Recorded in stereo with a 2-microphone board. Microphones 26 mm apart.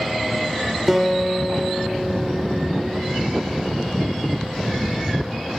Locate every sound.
0.9 s a guitar: 10° right (ahead or behind), 2 m